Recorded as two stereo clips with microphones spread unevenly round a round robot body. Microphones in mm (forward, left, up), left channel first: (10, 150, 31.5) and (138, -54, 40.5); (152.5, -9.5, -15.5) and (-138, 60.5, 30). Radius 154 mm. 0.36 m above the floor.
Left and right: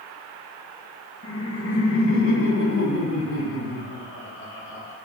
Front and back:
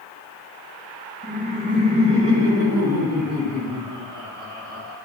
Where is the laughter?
100° left, 3 m; by 5.0 s 90° left, 5 m.